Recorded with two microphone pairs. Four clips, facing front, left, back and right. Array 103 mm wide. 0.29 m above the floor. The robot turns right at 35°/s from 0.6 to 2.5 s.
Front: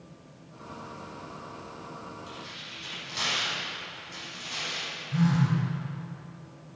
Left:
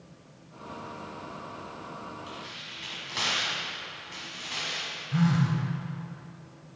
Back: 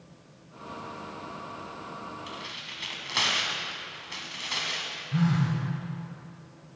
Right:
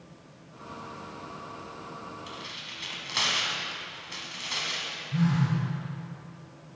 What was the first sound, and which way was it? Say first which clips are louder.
Tearing paper: even, back 2 dB; 175° right.